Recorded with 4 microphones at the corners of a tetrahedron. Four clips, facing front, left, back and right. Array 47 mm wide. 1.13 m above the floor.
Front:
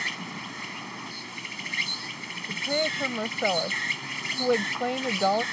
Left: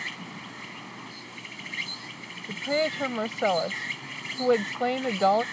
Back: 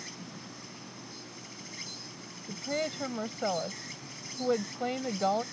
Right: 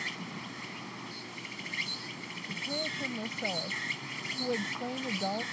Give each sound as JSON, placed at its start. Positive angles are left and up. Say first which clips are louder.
{"t": 0.0, "sound": "an insect", "louder": "left 2 dB, front 13 dB", "azimuth_deg": 10}
{"t": 2.5, "sound": "a woman speaking", "louder": "left 9 dB, front 6 dB", "azimuth_deg": 70}